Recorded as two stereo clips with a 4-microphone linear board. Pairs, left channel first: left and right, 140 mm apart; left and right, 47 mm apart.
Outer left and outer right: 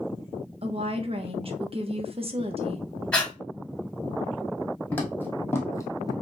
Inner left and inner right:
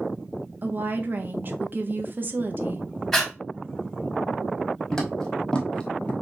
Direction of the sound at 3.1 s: 10° left (ahead or behind).